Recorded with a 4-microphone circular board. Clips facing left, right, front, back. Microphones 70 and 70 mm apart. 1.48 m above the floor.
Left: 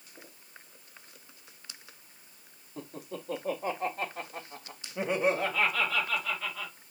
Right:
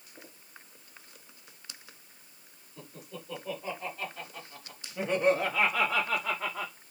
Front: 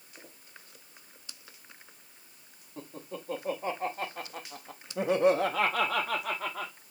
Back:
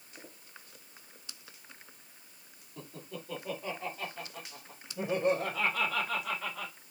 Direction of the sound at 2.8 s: 60° left.